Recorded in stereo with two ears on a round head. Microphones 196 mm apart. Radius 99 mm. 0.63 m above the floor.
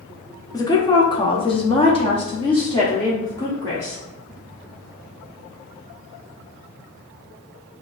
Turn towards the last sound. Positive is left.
turn(degrees=15)  # may be behind; listen again after turning